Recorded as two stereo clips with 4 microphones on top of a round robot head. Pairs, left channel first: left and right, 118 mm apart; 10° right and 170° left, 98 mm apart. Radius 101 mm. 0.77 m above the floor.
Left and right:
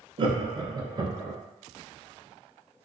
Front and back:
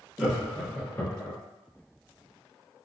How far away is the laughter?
About 0.8 m.